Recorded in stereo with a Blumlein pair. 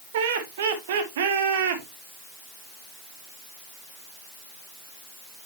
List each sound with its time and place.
0.1 s laughter: 55° right, 1.6 m